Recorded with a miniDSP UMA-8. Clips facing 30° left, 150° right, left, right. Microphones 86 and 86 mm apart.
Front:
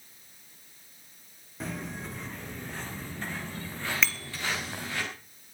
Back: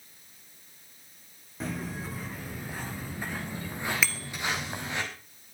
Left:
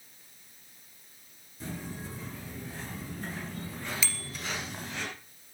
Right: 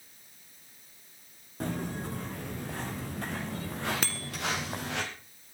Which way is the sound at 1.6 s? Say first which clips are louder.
Back 2 dB, right 6 dB; 60° right.